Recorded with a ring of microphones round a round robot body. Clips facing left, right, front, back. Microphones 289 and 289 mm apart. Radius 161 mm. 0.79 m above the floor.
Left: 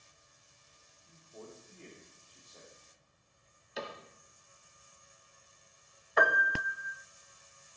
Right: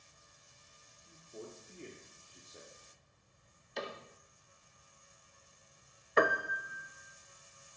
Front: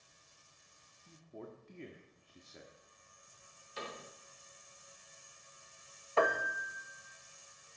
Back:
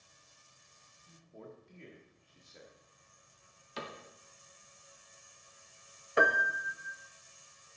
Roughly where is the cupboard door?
Behind.